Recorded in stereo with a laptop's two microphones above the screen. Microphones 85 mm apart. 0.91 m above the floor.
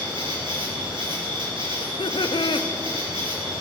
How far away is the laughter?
About 0.7 m.